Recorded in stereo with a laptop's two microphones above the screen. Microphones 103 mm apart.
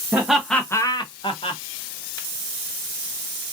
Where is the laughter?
15° right (ahead or behind), 0.7 m; by 1.6 s 65° left (ahead or behind), 0.9 m.